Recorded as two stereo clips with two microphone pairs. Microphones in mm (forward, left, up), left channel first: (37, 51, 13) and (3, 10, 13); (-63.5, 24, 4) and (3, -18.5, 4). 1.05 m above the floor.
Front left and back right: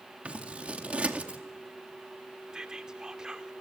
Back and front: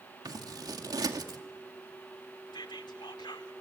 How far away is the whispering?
About 2.5 m.